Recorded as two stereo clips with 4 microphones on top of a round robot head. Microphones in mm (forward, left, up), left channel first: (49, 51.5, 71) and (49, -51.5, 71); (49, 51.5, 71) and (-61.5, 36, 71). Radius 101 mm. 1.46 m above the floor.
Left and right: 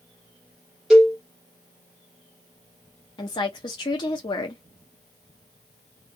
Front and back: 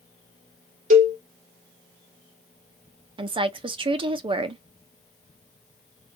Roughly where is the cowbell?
Behind.